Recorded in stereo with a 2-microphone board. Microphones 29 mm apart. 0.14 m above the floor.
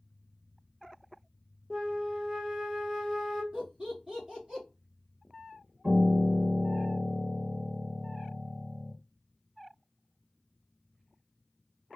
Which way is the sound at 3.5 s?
30° right (ahead or behind).